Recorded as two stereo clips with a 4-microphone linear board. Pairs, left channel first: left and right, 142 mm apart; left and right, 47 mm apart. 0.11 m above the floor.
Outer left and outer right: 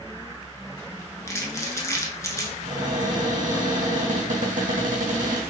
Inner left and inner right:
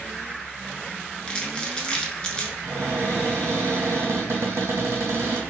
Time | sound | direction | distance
1.3 | crumpling | 20° left (ahead or behind) | 0.7 m
2.6 | a cupboard door | 75° right (ahead or behind) | 1.5 m